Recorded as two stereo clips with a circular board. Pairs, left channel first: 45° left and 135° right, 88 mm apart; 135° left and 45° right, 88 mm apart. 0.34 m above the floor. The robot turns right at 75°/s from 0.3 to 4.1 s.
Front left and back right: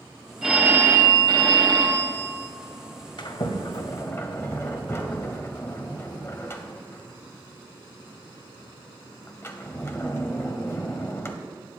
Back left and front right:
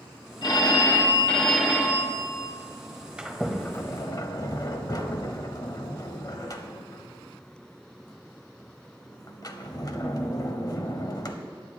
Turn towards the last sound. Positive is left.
turn(degrees=100)